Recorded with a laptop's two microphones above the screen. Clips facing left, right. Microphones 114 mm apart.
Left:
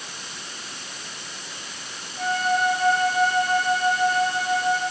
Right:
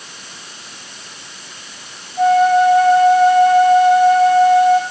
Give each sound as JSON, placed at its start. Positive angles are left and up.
{"t": 2.2, "sound": "a flute", "side_deg": -75, "distance_m": 6.0}